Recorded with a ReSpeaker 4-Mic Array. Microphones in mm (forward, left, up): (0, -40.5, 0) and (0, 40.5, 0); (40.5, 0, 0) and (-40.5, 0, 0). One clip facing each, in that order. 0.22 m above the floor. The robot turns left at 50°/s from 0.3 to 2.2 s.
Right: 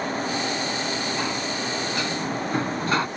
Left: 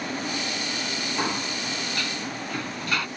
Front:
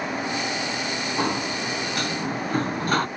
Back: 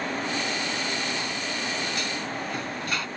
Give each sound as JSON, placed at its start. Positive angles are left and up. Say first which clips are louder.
{"t": 1.2, "sound": "a sliding door", "louder": "right 1 dB, front 6 dB", "azimuth_deg": 15}